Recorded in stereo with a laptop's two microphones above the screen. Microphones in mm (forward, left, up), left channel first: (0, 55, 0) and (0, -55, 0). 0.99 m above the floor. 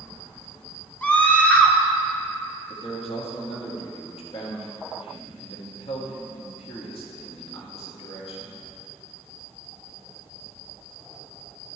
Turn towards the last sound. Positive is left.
turn(degrees=55)  # may be behind; listen again after turning